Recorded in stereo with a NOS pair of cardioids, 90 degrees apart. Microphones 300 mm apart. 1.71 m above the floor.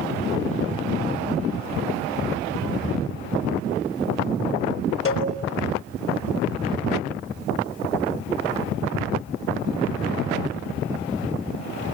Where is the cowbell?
50° left, 5.5 m.